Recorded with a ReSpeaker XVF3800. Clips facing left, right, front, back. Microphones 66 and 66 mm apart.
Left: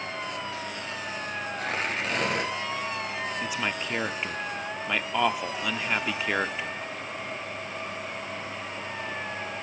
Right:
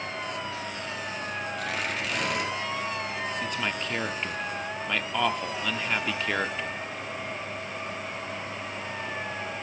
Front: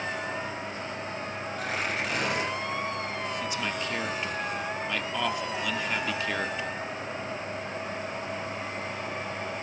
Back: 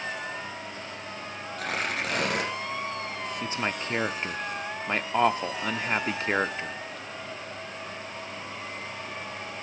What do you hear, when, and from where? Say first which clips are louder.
1.6 s tearing paper: left 3 dB, back 1 dB; 145° left, 5.5 m
3.4 s a man speaking: even, back 1 dB; 165° left, 0.7 m